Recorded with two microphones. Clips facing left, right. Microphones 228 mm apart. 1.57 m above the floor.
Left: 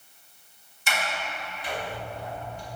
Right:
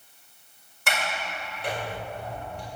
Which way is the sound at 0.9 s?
65° right (ahead or behind).